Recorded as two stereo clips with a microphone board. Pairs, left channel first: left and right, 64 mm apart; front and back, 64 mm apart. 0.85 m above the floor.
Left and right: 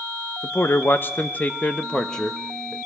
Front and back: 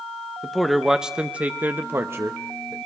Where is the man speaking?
80° left, 1.1 m; by 2.8 s straight behind, 1.3 m.